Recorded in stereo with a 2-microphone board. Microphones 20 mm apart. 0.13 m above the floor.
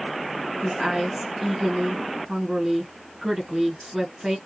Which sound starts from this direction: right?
A woman speaking, at 0.6 s.